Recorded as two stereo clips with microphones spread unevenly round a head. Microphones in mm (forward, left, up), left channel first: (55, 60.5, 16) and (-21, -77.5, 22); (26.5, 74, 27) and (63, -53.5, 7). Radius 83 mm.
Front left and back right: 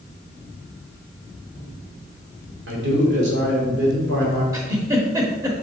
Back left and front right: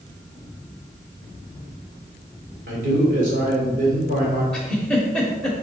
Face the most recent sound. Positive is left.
turn(degrees=180)